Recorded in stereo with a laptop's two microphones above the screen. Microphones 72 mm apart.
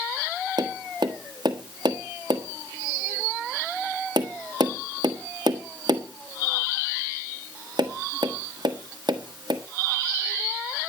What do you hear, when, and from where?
0.6 s tapping: 85° right, 1.5 m